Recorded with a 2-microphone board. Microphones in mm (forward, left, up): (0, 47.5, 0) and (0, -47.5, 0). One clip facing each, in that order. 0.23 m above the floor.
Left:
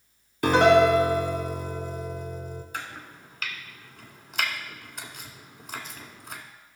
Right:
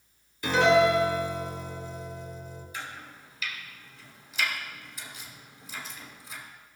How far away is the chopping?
About 1.3 m.